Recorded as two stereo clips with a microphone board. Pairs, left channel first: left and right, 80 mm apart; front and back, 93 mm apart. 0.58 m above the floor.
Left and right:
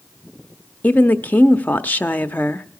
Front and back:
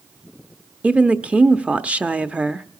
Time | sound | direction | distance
0.8 | a woman speaking | 125° left | 0.8 m